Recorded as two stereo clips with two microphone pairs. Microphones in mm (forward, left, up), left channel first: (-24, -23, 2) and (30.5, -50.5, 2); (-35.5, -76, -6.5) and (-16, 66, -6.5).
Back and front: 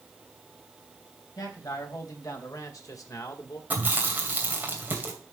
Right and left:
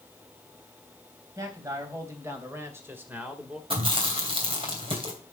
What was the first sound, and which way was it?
A man speaking, 150° left.